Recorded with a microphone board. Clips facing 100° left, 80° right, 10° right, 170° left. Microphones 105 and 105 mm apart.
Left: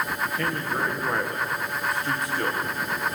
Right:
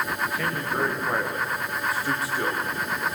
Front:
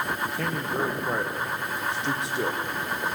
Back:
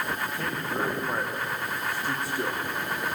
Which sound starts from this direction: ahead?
A man speaking, at 0.2 s.